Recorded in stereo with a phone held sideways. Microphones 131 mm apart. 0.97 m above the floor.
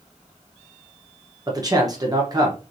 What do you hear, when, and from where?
1.5 s a man speaking: 30° right (ahead or behind), 1.0 m